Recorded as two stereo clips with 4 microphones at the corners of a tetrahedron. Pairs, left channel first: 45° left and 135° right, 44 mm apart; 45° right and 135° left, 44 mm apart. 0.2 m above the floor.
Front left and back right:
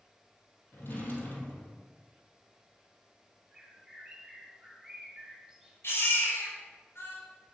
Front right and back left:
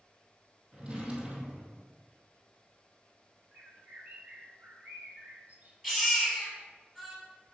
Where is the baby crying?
55° left, 3 m.